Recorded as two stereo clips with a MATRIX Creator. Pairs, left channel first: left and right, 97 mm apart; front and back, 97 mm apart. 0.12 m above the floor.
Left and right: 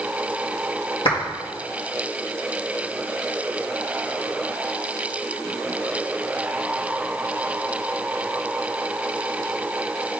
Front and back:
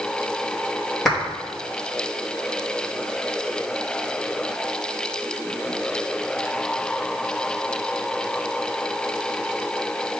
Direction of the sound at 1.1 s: 85° left.